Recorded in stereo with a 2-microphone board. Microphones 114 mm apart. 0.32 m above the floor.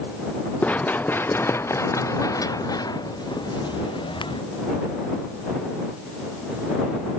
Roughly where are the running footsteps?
Centre.